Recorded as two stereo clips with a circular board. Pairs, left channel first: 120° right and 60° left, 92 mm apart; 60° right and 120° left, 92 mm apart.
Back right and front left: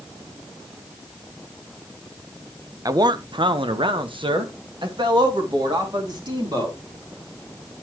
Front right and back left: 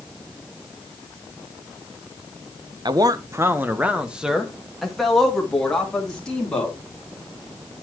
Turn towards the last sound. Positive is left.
turn(degrees=20)